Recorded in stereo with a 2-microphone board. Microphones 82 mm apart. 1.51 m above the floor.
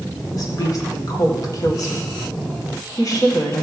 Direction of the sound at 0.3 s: 45° left (ahead or behind).